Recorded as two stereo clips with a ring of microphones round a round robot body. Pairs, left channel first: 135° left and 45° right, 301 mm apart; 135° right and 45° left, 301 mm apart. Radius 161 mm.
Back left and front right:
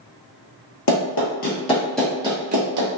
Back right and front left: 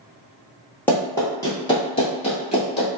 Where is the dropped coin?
No dropped coin in this recording.